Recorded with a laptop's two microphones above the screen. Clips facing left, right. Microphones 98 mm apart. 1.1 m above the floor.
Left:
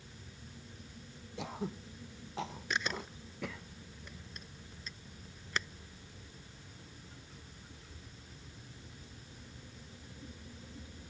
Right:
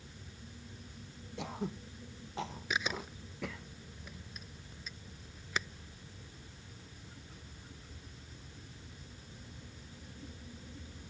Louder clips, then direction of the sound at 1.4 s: Even; centre (ahead or behind).